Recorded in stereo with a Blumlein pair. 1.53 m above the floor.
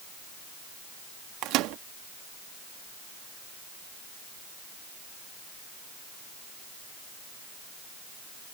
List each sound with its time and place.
1.4 s a microwave: 40° right